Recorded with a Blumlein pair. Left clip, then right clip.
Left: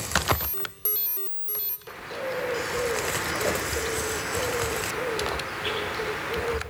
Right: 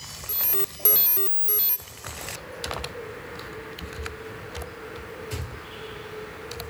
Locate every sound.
0.3 s an alarm: 20° right, 0.6 m
1.9 s a bird: 40° left, 1.6 m